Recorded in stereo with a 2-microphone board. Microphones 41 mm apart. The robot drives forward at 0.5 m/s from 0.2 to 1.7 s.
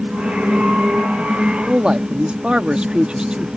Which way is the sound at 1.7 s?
25° right (ahead or behind).